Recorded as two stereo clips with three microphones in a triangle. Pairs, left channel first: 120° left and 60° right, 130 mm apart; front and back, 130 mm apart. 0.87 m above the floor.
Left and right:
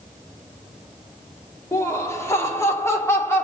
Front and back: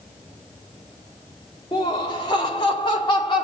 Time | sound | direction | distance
1.7 | laughter | 55° left | 2.5 m